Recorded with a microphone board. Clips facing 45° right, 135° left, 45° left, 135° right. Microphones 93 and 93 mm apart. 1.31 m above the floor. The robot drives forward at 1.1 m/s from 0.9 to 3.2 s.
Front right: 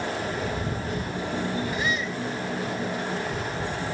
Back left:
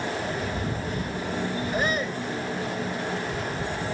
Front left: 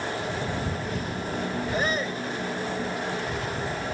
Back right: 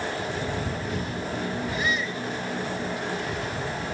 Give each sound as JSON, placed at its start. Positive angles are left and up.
{"t": 1.7, "sound": "a shout", "azimuth_deg": 90}